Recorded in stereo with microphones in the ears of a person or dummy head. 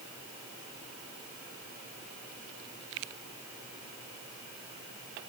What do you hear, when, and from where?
Only background noise.